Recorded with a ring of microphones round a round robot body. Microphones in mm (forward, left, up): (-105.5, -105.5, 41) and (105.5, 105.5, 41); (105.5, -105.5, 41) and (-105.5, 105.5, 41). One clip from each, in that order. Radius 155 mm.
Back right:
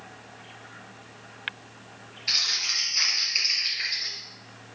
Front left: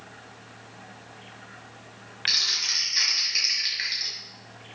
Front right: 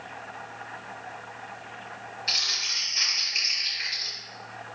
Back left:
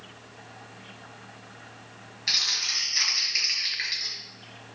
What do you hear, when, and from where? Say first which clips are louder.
2.3 s crumpling: front left 1 dB, back left 1 dB; 80° left, 5 m